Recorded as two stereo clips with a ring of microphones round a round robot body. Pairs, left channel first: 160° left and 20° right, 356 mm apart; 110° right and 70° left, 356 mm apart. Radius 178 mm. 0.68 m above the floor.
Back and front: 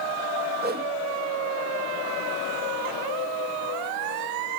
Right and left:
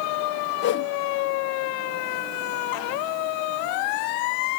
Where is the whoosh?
70° right, 0.8 m.